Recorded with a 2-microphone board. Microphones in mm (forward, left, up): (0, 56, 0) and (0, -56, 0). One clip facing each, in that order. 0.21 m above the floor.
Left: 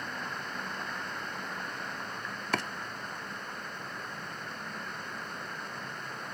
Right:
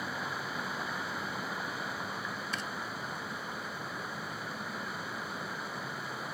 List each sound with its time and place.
0.0 s running water: 5° right (ahead or behind)
2.5 s chopping: 70° left (ahead or behind)